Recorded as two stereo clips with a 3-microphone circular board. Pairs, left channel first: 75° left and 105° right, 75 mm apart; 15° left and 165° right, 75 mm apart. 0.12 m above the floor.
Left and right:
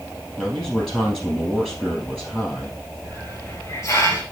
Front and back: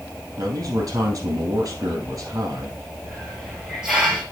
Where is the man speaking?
155° left, 3 m.